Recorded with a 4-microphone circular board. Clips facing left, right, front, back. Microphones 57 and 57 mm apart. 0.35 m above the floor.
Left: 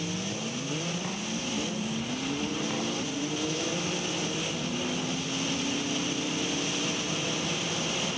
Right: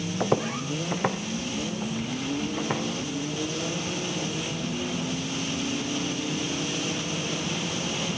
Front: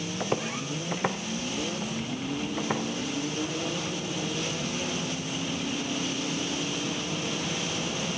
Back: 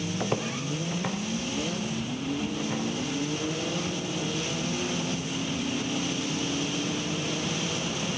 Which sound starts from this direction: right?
Footsteps, at 0.2 s.